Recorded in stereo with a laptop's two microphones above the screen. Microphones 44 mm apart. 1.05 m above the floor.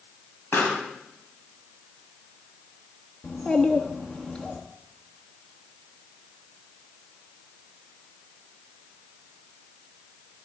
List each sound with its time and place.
0.5 s a pop: 60° left (ahead or behind), 3 m
3.2 s a child speaking: 20° left (ahead or behind), 1.1 m